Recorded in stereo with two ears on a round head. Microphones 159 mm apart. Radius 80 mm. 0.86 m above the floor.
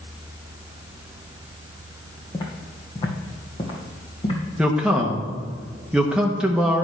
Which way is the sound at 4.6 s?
5° right (ahead or behind).